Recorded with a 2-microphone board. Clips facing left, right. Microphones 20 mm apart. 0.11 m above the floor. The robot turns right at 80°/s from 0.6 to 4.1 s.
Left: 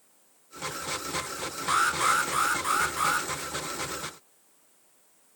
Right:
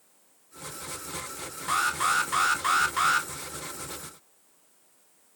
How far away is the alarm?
About 0.8 m.